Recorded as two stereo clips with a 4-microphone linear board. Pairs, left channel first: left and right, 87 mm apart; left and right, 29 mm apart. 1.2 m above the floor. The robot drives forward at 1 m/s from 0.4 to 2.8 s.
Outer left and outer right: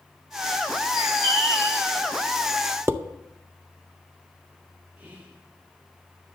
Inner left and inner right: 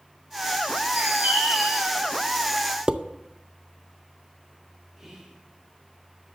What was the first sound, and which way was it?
A bird, 70° right (ahead or behind).